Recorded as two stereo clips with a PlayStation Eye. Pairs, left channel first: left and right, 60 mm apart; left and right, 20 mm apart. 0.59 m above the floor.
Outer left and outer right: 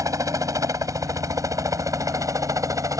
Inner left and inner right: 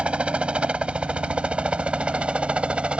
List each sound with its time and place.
0.0 s a helicopter: 65° right (ahead or behind)